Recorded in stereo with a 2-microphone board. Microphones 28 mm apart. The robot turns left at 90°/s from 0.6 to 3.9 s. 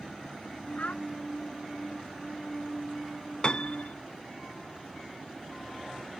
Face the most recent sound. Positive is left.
turn(degrees=95)